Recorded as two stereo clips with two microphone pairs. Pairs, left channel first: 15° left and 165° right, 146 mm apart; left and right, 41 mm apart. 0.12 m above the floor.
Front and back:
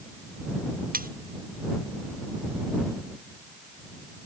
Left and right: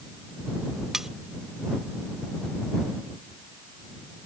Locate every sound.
0.9 s cutlery clinking: 175° right